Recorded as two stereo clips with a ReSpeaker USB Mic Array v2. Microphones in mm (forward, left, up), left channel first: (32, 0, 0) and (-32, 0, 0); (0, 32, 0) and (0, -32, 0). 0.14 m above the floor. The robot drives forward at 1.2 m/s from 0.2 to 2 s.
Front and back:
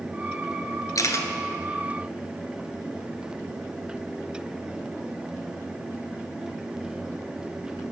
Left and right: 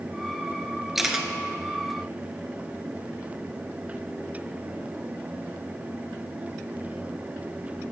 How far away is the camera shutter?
About 1.0 m.